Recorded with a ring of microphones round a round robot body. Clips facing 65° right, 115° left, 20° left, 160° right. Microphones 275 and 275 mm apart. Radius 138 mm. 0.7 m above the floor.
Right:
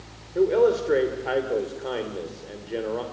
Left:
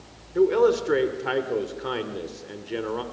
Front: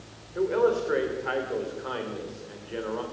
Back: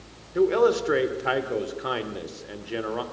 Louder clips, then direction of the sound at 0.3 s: Even, back 4 dB; straight behind.